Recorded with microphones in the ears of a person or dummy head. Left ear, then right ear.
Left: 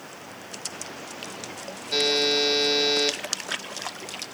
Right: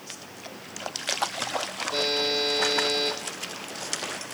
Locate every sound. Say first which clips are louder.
1.9 s a buzzer: left 4 dB; 45° left (ahead or behind), 1.8 m